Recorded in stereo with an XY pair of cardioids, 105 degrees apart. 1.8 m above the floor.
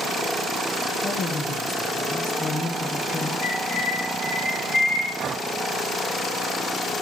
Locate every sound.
1.0 s a man speaking: 60° left, 1.7 m
3.4 s a bird: 55° left, 8 m
5.2 s breathing: 60° right, 0.8 m